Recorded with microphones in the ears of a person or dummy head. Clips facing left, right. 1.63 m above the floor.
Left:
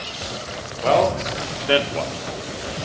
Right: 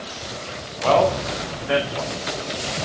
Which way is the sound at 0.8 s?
20° left (ahead or behind).